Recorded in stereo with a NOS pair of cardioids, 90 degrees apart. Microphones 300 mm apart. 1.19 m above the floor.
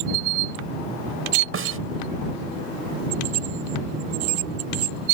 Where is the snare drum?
45° right.